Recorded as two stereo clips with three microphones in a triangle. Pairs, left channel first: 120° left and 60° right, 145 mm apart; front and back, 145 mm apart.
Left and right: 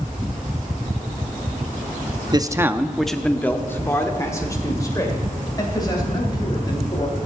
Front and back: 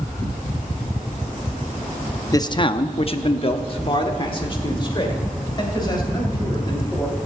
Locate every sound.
2.3 s a man speaking: 40° right, 0.6 m; by 7.2 s 60° left, 3.5 m